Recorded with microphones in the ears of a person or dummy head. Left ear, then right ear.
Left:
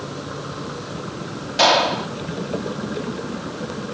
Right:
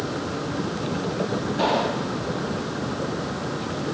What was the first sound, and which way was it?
A gunshot, 65° left (ahead or behind).